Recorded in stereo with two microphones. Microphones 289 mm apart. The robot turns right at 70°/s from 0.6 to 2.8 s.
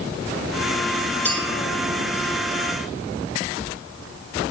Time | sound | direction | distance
1.2 | a clink | 5° left (ahead or behind) | 3.5 m